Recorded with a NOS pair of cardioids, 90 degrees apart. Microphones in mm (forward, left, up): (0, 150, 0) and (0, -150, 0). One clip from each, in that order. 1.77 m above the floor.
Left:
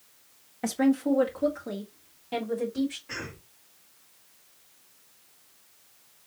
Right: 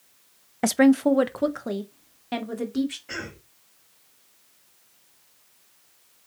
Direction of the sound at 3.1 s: 60° right.